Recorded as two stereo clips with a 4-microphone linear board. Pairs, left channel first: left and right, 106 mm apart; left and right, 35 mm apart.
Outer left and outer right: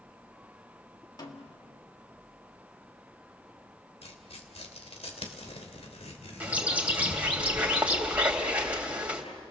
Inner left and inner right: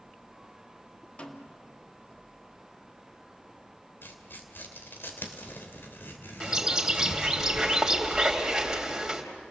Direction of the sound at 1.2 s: 40° left (ahead or behind).